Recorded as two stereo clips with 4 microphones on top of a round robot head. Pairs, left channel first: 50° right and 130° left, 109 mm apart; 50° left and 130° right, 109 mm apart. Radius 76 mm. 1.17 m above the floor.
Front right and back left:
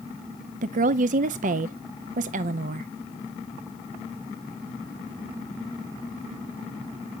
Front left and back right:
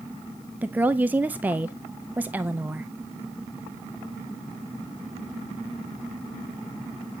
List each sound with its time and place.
0.6 s a woman speaking: 150° left, 0.5 m